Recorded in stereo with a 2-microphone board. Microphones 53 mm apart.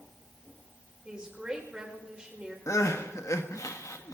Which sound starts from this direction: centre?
A woman speaking, at 1.1 s.